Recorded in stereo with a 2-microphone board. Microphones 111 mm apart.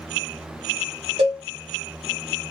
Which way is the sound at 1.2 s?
75° right (ahead or behind).